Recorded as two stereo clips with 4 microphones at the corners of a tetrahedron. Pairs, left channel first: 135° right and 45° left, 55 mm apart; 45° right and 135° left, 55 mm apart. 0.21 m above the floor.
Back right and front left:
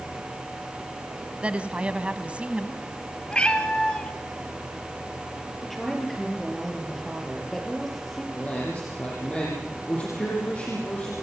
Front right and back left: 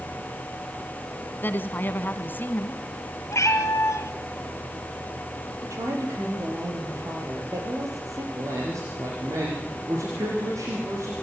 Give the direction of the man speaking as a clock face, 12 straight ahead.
7 o'clock.